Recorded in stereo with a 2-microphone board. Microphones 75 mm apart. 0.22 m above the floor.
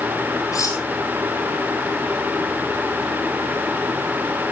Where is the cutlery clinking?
50° left (ahead or behind), 4 m.